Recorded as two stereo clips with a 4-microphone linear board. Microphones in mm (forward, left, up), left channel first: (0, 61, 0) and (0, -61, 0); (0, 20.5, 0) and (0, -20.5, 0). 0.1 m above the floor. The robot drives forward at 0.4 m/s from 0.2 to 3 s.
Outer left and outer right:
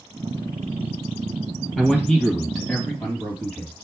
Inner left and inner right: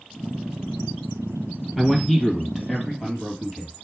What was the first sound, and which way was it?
A man speaking, 5° left (ahead or behind).